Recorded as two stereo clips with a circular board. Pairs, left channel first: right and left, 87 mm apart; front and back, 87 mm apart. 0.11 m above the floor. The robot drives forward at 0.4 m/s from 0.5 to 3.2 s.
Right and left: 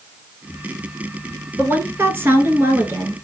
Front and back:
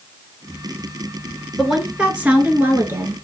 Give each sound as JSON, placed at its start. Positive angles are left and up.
{"t": 1.6, "sound": "a woman speaking", "azimuth_deg": 95, "distance_m": 1.3}